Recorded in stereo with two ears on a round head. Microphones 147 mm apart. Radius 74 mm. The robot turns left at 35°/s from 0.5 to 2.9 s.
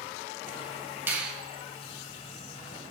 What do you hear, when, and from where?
1.1 s a finger snap: 15° right (ahead or behind), 1.6 m; by 1.3 s 5° right (ahead or behind), 1.6 m